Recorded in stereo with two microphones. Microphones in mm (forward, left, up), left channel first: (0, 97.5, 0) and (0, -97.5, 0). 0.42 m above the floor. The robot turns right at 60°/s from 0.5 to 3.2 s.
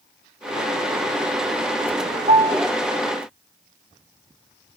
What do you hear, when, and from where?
2.3 s a piano: 45° right (ahead or behind), 1.0 m; by 2.6 s 25° right (ahead or behind), 1.0 m